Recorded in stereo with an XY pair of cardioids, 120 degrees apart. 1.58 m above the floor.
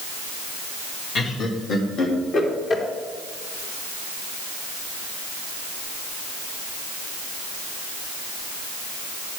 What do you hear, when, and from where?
1.1 s laughter: 45° left, 2 m; by 2.8 s 50° left, 3 m